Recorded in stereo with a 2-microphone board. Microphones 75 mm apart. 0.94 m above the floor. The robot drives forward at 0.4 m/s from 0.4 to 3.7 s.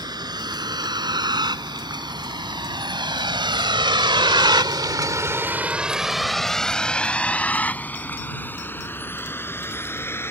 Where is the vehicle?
60° right (ahead or behind); by 10.3 s 30° left (ahead or behind).